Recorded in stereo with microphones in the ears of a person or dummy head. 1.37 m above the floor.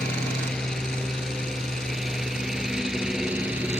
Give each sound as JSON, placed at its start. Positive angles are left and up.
{"t": 0.0, "sound": "a lawn mower", "side_deg": 5}